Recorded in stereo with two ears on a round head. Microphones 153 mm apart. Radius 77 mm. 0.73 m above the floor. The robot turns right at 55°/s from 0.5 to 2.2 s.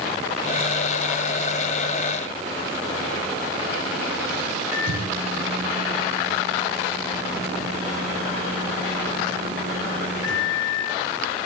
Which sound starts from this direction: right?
A microwave, at 4.7 s.